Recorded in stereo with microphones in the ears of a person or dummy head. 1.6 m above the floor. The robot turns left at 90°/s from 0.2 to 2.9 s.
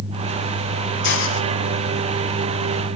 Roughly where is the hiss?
Behind left.